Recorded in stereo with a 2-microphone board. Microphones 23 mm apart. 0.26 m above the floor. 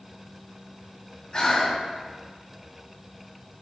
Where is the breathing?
35° left (ahead or behind), 1.7 m.